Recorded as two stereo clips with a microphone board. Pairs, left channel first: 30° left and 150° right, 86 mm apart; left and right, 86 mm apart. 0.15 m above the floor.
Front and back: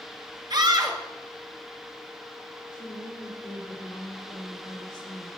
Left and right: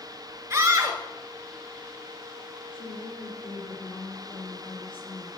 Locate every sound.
0.5 s a scream: 140° right, 2 m
2.7 s a woman speaking: 65° left, 8 m